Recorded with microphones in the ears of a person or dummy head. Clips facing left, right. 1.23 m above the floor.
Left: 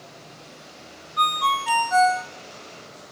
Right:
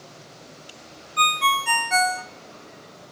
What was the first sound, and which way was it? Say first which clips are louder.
A ringtone: even; 35° right (ahead or behind).